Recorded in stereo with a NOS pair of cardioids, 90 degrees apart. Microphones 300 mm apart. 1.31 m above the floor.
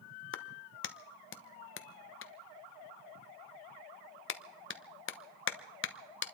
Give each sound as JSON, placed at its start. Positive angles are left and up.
{"t": 0.3, "sound": "a clap", "azimuth_deg": 40, "distance_m": 1.1}